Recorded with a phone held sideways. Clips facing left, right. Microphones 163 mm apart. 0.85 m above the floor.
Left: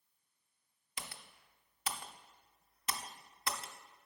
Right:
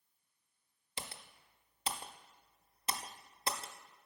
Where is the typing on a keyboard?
30° right (ahead or behind), 0.5 m.